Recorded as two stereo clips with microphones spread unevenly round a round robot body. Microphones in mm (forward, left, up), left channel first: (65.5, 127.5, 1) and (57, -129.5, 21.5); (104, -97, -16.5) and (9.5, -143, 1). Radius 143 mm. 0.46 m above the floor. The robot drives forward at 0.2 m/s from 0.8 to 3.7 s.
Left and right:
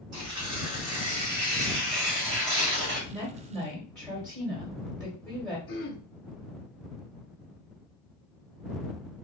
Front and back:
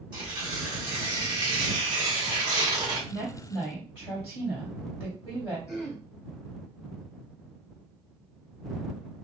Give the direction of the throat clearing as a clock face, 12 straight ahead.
8 o'clock.